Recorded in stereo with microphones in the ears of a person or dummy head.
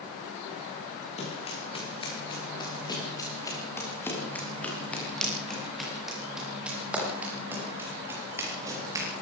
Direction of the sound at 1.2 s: 35° left (ahead or behind).